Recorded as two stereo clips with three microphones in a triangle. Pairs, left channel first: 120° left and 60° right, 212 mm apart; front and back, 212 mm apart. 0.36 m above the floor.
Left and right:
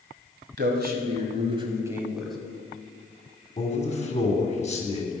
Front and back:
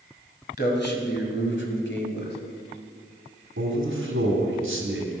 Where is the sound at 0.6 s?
35° right, 2 m; by 2.4 s 35° left, 1.9 m.